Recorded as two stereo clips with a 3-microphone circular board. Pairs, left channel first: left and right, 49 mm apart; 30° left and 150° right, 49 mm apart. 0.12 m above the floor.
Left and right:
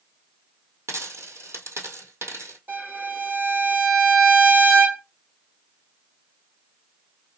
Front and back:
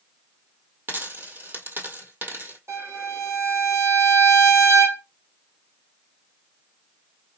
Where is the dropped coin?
110° right, 1.5 m.